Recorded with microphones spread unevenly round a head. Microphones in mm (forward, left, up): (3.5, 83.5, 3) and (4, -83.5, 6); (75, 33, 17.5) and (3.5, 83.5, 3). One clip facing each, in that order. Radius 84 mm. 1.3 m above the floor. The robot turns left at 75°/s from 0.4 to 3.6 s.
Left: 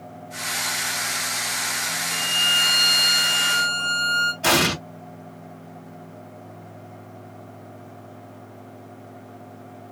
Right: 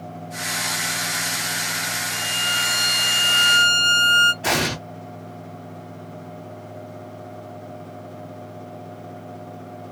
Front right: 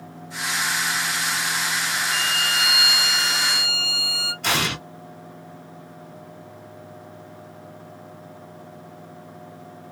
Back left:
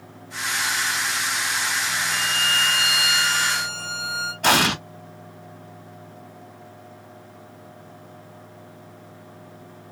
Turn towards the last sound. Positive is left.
turn(degrees=120)